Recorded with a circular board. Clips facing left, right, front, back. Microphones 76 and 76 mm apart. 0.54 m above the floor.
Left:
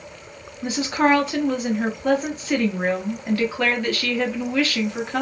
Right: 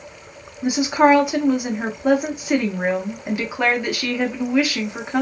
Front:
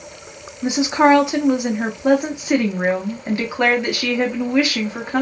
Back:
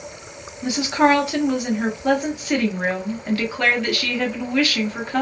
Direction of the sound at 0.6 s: 40° right.